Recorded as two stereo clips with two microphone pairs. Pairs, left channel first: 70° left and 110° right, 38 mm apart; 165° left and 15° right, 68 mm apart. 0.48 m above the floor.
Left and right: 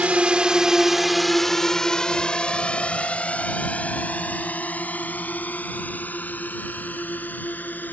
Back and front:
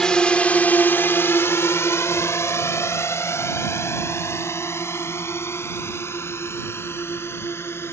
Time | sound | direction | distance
0.0 | a drone | 125° right | ?